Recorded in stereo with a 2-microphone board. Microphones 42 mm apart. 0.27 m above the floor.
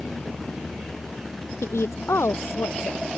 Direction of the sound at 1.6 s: 85° left.